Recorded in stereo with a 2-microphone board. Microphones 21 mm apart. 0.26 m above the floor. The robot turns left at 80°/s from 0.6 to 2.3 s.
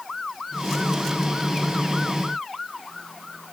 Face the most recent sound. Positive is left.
No sound to turn to.